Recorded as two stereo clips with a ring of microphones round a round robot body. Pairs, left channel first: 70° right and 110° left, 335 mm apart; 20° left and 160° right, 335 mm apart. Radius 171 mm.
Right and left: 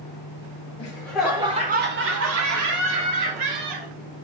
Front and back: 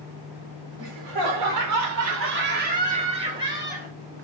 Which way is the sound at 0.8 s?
140° right.